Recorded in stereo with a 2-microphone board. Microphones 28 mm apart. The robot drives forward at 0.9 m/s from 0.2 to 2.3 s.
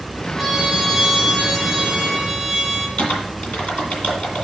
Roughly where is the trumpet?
Centre.